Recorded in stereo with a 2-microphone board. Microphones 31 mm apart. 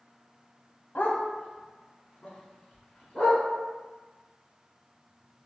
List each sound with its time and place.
0.9 s a dog barking: 70° left (ahead or behind), 0.6 m; by 3.4 s 35° left (ahead or behind), 1.7 m